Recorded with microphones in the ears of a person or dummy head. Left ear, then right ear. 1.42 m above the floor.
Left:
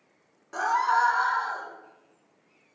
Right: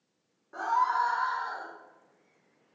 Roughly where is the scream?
Left.